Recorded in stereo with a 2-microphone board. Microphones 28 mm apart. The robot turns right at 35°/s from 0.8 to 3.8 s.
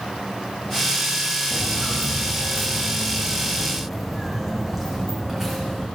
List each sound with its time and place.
1.5 s footsteps: 45° left (ahead or behind), 1.6 m; by 5.8 s 15° right (ahead or behind), 4 m